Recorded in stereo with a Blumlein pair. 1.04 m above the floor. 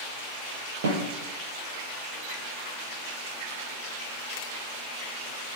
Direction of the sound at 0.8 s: 55° right.